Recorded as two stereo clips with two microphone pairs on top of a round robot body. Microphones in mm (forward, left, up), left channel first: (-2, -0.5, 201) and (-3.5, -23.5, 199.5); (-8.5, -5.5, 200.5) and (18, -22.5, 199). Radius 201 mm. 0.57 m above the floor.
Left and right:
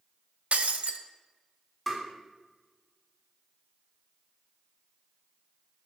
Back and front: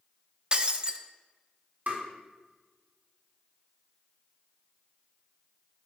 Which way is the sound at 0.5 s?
90° right.